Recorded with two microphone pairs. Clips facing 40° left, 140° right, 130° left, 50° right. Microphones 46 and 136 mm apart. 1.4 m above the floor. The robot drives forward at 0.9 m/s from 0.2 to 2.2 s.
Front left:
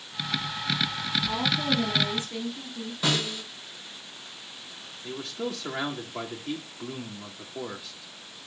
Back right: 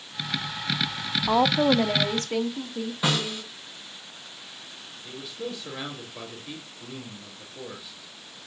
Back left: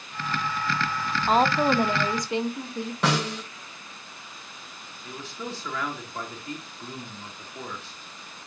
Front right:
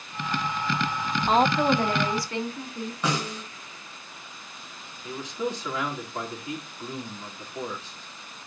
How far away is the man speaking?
About 2.5 m.